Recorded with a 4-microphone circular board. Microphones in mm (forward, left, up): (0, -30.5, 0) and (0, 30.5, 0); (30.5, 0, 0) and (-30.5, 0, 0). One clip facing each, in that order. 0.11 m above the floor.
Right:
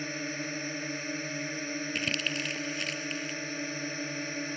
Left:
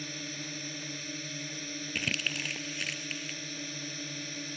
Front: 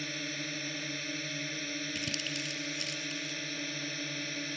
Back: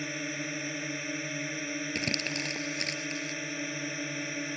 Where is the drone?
120° right.